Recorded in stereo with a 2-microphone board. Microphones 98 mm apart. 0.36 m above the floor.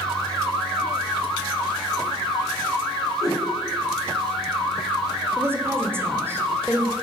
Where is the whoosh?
40° left (ahead or behind), 3 m.